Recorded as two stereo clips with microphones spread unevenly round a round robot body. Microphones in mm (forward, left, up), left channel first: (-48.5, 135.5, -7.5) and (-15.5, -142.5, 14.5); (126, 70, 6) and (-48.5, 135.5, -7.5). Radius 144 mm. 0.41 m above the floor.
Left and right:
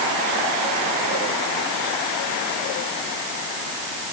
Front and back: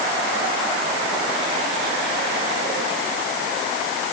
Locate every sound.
Only background noise.